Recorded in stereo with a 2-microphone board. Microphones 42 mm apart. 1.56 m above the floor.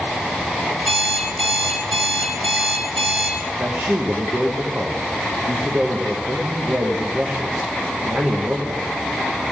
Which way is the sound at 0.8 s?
10° right (ahead or behind).